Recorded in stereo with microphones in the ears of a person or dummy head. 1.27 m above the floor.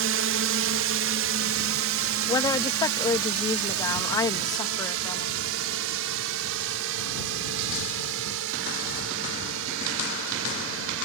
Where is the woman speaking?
20° left (ahead or behind).